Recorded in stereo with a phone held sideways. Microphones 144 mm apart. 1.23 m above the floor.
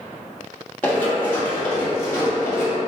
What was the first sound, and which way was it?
Running footsteps, 15° left (ahead or behind).